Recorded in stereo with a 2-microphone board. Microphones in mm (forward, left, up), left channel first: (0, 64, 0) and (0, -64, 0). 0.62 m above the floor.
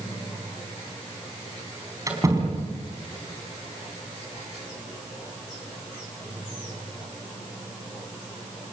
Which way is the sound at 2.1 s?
25° right (ahead or behind).